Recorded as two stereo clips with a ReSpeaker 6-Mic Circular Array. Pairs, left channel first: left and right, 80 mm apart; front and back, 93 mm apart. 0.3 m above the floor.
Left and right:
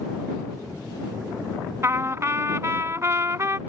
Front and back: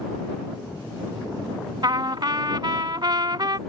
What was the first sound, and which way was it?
A trumpet, 140° right.